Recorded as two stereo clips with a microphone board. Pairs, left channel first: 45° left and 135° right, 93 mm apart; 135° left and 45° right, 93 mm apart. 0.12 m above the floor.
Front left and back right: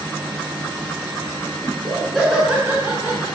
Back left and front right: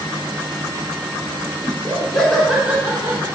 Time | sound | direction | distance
1.6 | laughter | 110° left | 1.2 m